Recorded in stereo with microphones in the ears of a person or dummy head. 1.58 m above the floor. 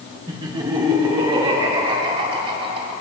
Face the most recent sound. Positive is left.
turn(degrees=-40)  # may be behind; listen again after turning